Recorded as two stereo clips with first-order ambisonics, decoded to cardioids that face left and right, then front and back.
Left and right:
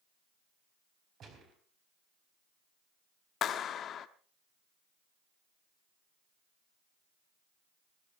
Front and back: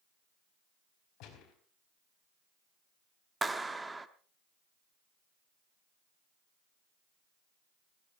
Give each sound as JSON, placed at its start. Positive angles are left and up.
{"t": 1.2, "sound": "a gunshot", "azimuth_deg": -35, "distance_m": 4.5}
{"t": 3.4, "sound": "a clap", "azimuth_deg": 105, "distance_m": 0.9}